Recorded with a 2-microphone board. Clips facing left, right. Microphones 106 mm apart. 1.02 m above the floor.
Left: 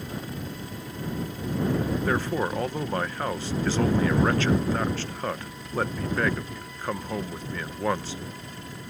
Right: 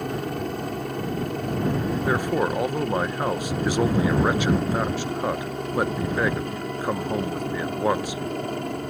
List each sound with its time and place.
0.0 s a helicopter: 65° right (ahead or behind); by 8.9 s 60° right (ahead or behind)
2.1 s a man speaking: 15° right (ahead or behind)